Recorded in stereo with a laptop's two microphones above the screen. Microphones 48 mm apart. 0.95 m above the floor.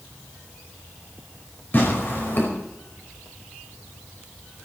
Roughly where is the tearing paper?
Left.